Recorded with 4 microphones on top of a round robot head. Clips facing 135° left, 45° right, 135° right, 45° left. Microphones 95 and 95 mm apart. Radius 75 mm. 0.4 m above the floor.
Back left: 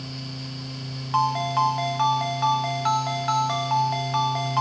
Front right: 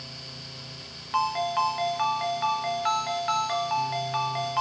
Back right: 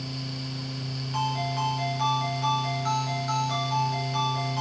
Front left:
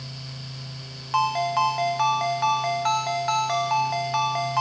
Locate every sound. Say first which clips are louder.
1.1 s a ringtone: back left 3 dB, front left 7 dB; 70° left, 1.7 m